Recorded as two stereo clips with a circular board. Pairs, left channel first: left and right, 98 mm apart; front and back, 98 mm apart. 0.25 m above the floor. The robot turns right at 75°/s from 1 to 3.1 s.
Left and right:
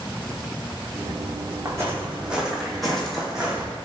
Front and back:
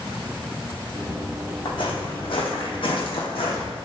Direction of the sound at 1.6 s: 35° right.